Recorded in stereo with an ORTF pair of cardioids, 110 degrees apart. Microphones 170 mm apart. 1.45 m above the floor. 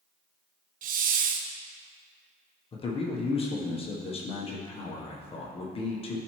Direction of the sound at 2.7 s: 35° left.